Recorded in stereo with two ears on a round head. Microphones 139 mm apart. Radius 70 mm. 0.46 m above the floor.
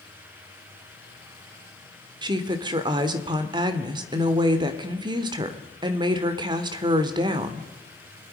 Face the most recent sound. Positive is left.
turn(degrees=-30)  # may be behind; listen again after turning